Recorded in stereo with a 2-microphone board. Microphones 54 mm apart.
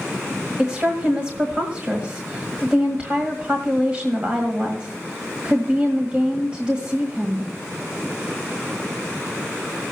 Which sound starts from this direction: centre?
A woman speaking, at 0.6 s.